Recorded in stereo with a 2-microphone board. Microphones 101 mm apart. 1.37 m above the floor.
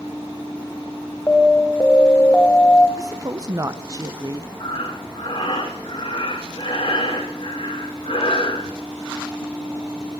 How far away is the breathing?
About 2.5 m.